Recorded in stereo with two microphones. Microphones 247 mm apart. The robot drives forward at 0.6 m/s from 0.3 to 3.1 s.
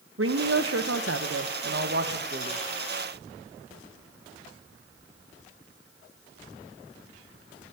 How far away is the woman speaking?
About 1.2 m.